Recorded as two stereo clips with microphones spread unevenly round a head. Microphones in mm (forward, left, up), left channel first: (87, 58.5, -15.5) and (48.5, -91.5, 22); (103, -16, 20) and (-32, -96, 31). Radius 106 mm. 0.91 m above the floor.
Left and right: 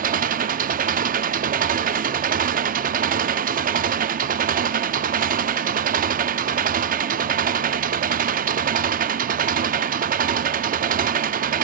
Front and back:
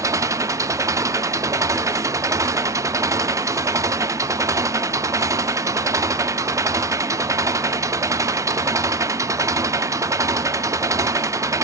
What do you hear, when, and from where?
0.0 s an engine running: 80° right, 0.8 m